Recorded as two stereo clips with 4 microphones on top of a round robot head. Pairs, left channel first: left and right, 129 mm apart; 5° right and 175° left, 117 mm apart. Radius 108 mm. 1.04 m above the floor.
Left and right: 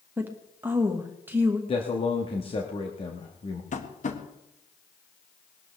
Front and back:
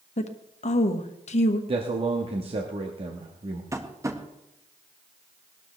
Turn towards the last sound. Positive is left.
turn(degrees=110)